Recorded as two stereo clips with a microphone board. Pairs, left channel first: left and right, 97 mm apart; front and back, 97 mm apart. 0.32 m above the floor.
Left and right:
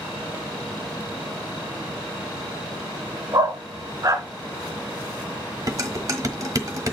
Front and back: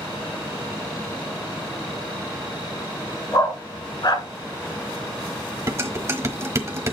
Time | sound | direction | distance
3.3 | a dog barking | 40° right | 1.5 m
5.7 | dishes clattering | 130° right | 1.2 m